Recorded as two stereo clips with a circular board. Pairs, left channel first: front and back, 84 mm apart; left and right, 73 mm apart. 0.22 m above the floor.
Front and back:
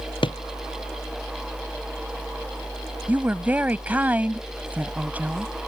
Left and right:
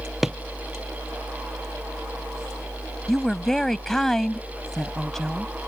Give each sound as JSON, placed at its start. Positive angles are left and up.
{"t": 0.2, "sound": "a drawer", "azimuth_deg": -5}
{"t": 3.1, "sound": "a woman speaking", "azimuth_deg": 165}